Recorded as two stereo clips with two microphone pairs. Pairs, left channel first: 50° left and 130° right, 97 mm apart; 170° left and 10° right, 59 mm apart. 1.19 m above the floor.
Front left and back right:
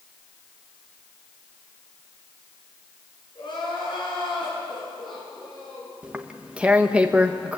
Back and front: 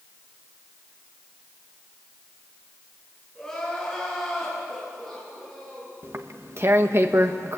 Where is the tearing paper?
50° right, 1.3 m.